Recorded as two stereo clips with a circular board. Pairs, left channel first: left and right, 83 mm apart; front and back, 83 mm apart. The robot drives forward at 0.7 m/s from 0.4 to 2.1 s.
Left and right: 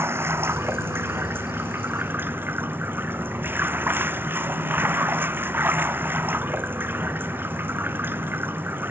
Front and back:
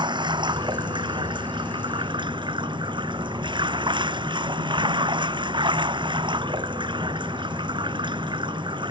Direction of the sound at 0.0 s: 150° right.